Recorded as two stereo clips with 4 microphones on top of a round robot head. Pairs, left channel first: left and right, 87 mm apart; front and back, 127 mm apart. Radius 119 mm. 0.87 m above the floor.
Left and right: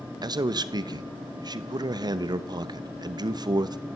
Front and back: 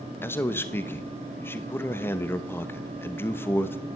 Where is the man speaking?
70° right, 1.2 m.